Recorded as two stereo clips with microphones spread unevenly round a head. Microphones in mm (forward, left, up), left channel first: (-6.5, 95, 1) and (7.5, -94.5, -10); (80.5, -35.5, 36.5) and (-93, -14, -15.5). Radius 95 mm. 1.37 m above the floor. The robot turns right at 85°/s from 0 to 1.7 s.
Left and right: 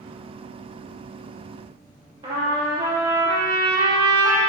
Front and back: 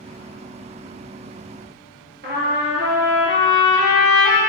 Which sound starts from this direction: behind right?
A trumpet, at 2.2 s.